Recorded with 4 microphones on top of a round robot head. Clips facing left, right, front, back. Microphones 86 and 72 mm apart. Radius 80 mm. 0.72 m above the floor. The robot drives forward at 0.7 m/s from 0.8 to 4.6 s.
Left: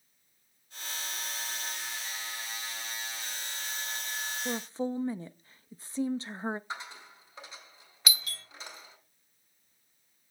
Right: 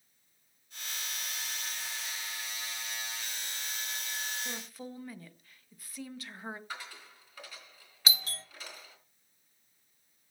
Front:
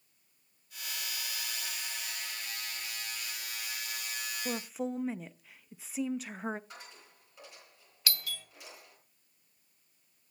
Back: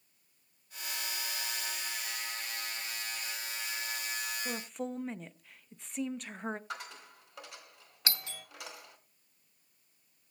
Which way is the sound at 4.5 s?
55° left.